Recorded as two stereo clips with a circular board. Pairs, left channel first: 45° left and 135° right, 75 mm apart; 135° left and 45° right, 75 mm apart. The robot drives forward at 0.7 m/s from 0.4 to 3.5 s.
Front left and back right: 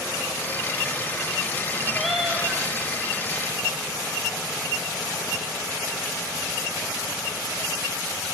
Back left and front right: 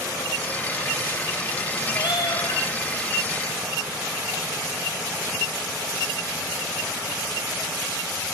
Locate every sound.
1.9 s a cat meowing: 130° left, 0.7 m; by 2.6 s 150° left, 1.0 m